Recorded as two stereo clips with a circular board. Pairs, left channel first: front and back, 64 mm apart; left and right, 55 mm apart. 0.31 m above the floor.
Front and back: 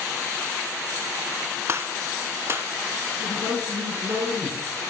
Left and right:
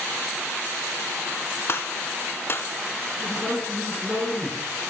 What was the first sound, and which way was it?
A gunshot, 135° left.